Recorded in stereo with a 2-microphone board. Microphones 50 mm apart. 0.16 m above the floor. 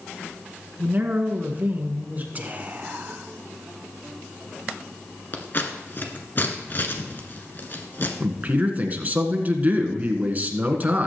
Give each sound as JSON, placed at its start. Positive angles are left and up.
{"t": 0.8, "sound": "a man speaking", "side_deg": -35, "distance_m": 1.7}
{"t": 2.4, "sound": "whispering", "side_deg": -35, "distance_m": 1.2}
{"t": 5.3, "sound": "scissors", "side_deg": 45, "distance_m": 1.5}
{"t": 8.2, "sound": "a man speaking", "side_deg": -35, "distance_m": 1.6}